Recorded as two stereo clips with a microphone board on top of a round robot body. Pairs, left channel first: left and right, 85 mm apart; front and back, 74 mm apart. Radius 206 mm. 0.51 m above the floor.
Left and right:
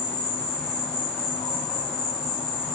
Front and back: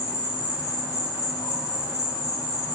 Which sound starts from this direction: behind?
An insect, at 0.0 s.